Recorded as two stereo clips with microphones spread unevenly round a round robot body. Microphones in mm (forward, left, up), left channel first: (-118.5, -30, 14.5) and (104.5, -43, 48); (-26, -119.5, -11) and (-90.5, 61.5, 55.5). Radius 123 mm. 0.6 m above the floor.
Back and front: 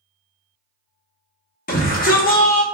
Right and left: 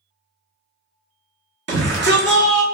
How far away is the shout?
About 1.2 m.